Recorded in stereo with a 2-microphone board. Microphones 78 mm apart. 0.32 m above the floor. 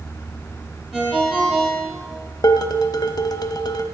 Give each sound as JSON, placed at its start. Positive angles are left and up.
{"t": 0.9, "sound": "a ringtone", "side_deg": -5, "distance_m": 4.5}
{"t": 2.4, "sound": "dishes clattering", "side_deg": 55, "distance_m": 0.9}